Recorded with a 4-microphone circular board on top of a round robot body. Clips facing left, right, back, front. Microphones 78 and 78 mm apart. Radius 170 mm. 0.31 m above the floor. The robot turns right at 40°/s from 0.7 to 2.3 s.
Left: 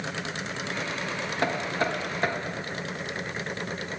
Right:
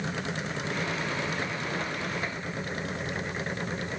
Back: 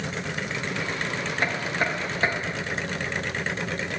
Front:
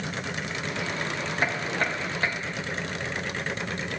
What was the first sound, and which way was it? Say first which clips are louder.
Knocking: left 5 dB, back 1 dB; 80° left.